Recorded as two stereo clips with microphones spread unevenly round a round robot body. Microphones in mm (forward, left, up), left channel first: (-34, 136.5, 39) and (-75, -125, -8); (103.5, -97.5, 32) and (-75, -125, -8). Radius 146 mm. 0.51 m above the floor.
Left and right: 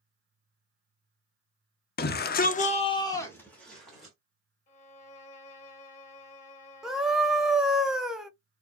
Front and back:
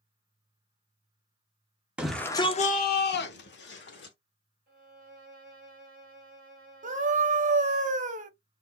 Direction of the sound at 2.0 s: 125° left.